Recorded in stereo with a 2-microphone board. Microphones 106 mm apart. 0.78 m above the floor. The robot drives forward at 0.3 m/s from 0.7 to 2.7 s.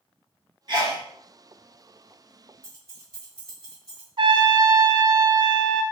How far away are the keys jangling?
About 1.5 m.